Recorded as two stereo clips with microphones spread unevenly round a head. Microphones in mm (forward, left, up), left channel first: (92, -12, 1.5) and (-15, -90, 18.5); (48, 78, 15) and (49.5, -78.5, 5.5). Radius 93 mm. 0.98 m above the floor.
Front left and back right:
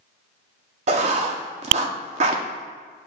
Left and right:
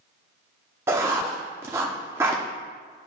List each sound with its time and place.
0.9 s writing: 165° right, 0.6 m